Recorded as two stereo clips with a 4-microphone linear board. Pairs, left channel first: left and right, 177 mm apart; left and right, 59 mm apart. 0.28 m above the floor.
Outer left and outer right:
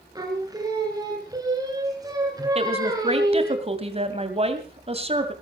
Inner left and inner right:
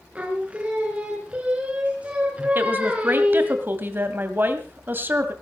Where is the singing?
20° right (ahead or behind), 3 m.